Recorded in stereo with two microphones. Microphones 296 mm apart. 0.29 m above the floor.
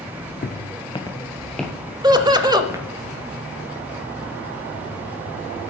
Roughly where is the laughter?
Centre.